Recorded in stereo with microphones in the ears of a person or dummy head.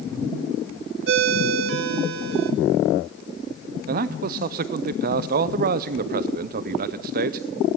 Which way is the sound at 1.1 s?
65° right (ahead or behind).